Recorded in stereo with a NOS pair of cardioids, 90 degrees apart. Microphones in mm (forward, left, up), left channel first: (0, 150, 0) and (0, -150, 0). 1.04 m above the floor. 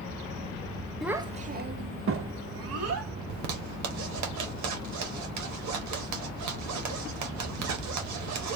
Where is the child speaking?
Straight ahead, 0.6 m; by 3.1 s 55° right, 2.0 m.